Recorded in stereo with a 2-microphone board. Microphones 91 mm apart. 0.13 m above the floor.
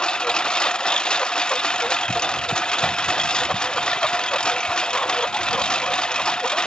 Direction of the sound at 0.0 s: 10° left (ahead or behind).